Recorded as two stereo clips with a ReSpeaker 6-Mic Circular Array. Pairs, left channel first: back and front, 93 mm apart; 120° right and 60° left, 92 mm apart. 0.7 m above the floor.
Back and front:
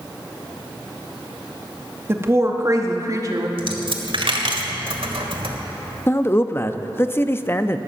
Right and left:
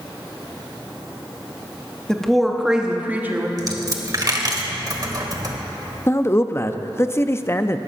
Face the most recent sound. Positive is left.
turn(degrees=-145)